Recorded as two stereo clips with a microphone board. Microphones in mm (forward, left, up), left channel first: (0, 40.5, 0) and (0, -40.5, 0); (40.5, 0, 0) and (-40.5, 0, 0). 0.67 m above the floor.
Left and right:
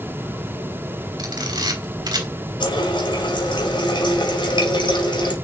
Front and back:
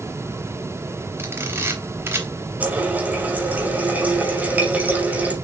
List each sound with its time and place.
1.2 s a camera shutter: 120° right, 3 m
2.6 s a running tap: 110° left, 2.5 m